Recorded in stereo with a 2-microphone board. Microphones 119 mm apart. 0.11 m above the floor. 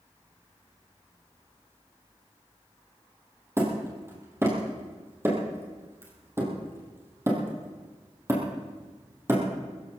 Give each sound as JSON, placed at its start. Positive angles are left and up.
{"t": 3.6, "sound": "hammering", "side_deg": -20, "distance_m": 3.5}